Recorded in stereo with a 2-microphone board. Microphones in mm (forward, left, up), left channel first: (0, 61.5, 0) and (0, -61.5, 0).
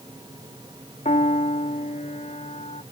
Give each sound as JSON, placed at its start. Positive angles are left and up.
{"t": 1.1, "sound": "a piano", "side_deg": 80}